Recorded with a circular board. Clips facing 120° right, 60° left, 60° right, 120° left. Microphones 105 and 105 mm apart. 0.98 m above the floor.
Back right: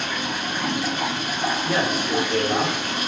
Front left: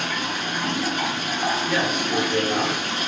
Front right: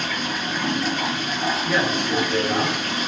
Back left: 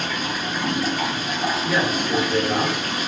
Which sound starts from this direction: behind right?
A man speaking, at 1.6 s.